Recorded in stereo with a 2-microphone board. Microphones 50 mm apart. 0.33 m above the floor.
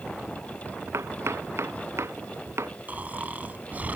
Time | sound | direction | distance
0.9 | chopping | 75° right (ahead or behind) | ?
2.9 | snoring | 35° right (ahead or behind) | ?